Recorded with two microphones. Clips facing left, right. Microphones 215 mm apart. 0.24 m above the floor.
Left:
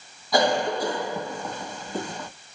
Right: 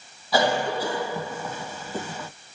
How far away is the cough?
About 1.5 m.